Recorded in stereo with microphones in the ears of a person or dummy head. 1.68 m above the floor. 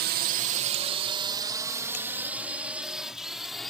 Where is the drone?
50° right (ahead or behind); by 3.7 s centre (ahead or behind).